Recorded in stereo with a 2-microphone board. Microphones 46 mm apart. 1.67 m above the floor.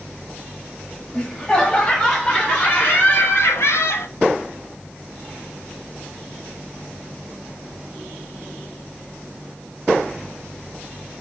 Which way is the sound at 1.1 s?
25° left (ahead or behind).